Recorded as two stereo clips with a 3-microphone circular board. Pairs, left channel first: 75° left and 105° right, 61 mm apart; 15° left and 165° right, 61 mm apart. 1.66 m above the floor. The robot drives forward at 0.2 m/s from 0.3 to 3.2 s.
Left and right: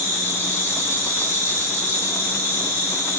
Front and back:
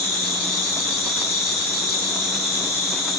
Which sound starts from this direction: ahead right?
An insect, at 0.0 s.